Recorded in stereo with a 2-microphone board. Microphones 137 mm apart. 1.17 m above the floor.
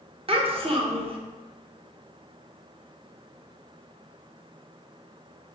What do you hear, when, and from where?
0.3 s a child speaking: 45° right (ahead or behind), 0.7 m